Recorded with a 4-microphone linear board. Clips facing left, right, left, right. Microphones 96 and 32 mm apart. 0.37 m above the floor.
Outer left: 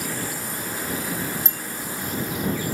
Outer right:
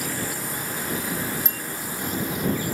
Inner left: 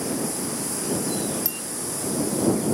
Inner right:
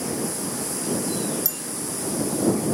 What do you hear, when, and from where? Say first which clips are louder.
1.4 s a bicycle bell: even, inner left 1 dB; 30° left (ahead or behind)